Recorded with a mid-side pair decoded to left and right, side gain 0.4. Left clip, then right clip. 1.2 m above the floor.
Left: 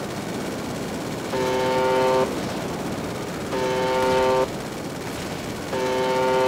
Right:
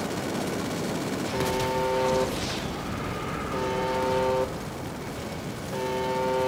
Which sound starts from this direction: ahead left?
A buzzer, at 1.3 s.